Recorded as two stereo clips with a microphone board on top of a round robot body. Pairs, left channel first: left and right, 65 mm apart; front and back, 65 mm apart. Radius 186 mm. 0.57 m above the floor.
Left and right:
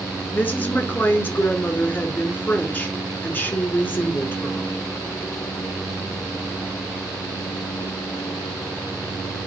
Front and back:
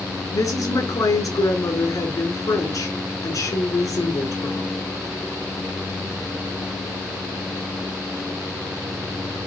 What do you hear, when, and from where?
0.3 s a woman speaking: 25° left, 2 m